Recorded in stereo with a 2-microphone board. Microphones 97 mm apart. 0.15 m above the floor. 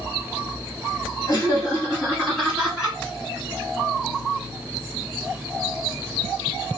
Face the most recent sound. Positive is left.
turn(degrees=-5)  # may be behind; listen again after turning